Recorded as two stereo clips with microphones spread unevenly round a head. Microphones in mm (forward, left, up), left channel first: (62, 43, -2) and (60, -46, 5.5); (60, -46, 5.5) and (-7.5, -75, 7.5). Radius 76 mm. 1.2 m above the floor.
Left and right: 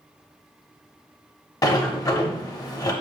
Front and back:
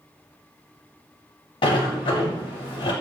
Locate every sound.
1.6 s a sliding door: 40° left, 0.8 m